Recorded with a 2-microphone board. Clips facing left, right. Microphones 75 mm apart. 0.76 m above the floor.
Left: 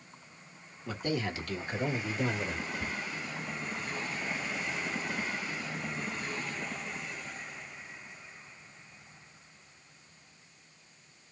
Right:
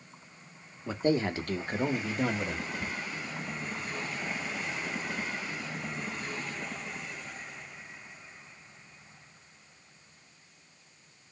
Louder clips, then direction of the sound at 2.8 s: Even; 25° left (ahead or behind).